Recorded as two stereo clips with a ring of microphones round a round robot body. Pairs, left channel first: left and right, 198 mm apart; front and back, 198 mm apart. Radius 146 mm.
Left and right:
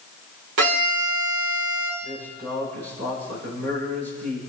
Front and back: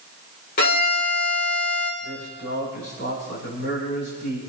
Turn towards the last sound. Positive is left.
turn(degrees=-45)